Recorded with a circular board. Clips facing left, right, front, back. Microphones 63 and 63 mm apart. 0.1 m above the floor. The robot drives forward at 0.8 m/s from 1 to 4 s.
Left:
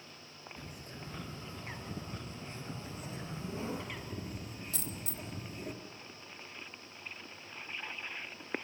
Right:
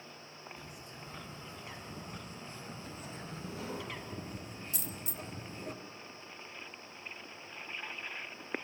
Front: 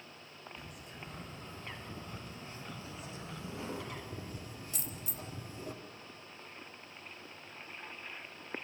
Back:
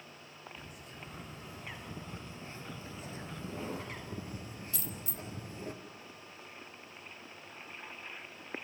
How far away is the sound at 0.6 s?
About 2.5 m.